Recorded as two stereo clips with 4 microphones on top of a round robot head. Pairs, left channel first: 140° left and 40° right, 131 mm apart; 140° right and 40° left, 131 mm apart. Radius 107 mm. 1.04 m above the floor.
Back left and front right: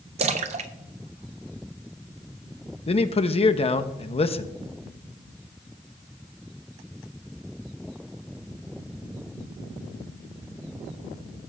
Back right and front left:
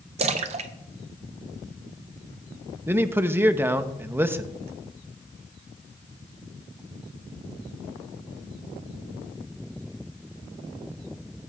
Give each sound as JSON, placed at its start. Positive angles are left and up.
{"t": 0.2, "sound": "a splash", "azimuth_deg": 0, "distance_m": 0.6}
{"t": 2.9, "sound": "a man speaking", "azimuth_deg": 110, "distance_m": 0.8}